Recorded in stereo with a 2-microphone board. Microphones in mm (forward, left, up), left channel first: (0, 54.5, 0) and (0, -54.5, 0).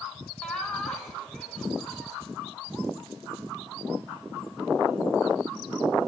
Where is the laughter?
10° left (ahead or behind), 3.5 m.